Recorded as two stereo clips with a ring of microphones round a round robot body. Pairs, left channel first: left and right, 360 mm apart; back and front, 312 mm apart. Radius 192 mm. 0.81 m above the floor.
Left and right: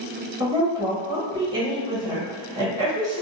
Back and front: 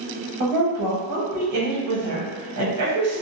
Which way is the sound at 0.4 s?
10° right.